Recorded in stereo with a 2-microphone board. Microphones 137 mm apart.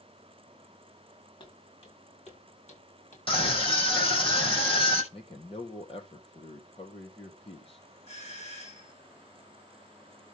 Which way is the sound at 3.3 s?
40° left (ahead or behind).